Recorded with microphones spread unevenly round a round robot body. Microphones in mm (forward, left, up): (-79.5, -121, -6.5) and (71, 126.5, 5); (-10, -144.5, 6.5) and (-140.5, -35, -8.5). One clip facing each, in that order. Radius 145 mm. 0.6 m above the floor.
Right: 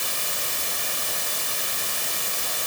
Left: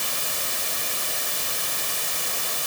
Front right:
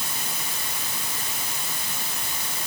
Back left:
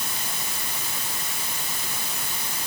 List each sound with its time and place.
Only background noise.